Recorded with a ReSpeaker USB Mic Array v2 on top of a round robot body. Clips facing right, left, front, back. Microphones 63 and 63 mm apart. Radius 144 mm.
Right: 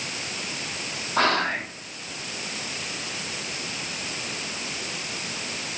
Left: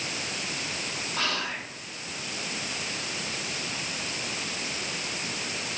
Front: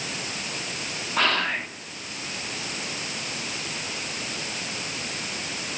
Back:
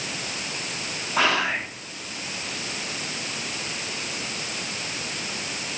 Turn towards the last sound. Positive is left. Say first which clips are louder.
# right 10 dB, back 2 dB
turn(degrees=-100)